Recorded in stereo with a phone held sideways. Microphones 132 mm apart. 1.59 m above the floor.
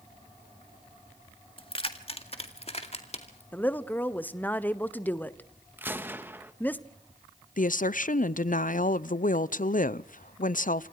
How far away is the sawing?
I don't hear sawing.